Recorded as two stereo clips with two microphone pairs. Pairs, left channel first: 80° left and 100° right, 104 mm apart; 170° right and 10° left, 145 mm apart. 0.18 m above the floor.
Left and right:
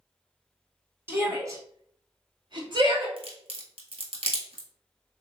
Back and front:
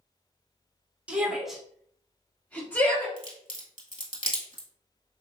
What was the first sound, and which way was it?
A shout, 60° right.